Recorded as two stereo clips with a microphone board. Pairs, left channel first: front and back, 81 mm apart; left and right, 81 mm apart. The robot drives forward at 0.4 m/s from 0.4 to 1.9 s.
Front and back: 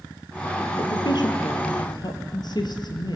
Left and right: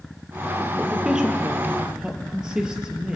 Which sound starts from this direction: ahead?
A woman speaking, at 0.8 s.